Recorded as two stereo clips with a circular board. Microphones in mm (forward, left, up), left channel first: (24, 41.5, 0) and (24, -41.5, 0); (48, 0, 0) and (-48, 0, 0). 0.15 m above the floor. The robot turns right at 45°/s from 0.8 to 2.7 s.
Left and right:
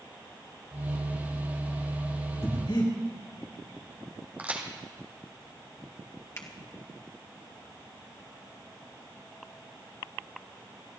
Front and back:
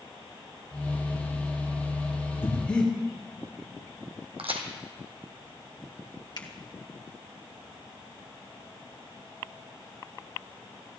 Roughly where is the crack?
Behind.